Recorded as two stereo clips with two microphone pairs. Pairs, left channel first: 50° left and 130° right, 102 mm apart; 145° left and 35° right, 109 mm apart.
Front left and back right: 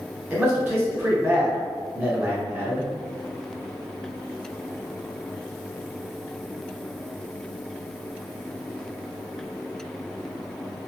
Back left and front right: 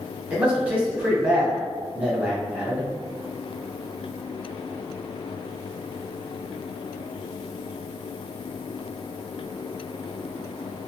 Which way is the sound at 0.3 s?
95° right.